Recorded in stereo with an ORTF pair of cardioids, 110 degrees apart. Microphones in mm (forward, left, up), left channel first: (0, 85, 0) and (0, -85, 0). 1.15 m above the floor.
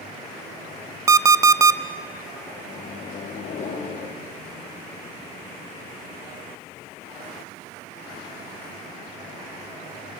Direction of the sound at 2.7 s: 50° left.